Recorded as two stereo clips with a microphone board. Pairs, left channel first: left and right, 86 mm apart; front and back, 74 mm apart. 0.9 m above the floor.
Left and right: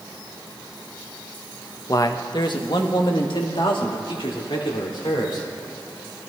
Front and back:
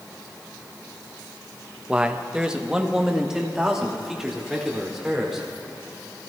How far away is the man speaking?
About 0.6 m.